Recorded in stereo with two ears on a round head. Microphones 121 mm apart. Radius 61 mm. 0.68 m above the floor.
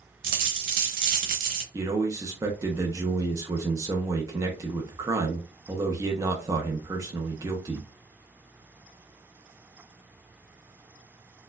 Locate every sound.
0.2 s a dropped coin: 75° right (ahead or behind), 1.0 m
1.7 s a man speaking: 25° right (ahead or behind), 0.7 m